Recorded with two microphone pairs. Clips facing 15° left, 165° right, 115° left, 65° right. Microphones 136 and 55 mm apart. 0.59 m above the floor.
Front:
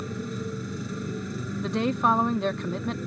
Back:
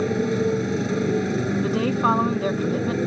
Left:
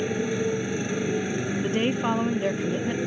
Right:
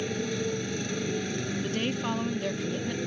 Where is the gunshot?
I don't hear a gunshot.